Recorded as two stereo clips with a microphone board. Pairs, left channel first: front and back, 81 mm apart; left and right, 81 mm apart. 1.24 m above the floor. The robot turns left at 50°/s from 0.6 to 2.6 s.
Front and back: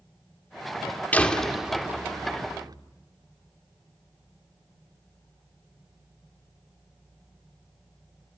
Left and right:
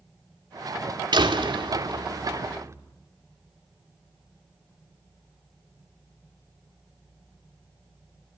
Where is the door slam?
70° right, 2.5 m; by 2.8 s 145° right, 2.5 m.